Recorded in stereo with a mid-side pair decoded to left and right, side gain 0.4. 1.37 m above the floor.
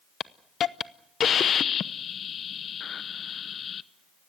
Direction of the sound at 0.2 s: 60° left.